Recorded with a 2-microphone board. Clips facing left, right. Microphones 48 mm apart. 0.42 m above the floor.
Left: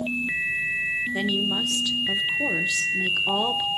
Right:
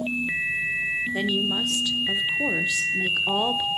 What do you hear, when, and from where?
1.1 s a woman speaking: 5° right (ahead or behind), 0.9 m